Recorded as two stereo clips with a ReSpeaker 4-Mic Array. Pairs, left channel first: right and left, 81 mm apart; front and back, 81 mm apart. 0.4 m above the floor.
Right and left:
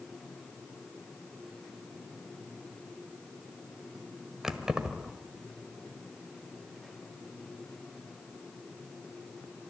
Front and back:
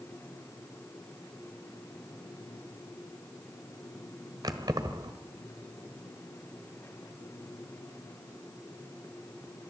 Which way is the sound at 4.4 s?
175° left.